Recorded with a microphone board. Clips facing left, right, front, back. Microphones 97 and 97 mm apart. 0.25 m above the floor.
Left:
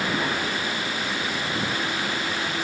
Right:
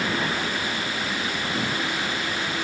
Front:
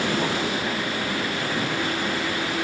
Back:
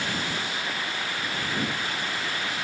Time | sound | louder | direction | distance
0.0 | a vehicle | even, front 7 dB | 5° left | ?